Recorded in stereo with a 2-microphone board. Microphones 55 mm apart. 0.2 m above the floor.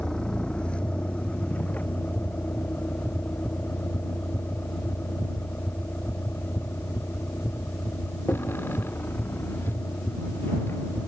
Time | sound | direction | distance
0.0 | a vehicle | 15° left (ahead or behind) | ?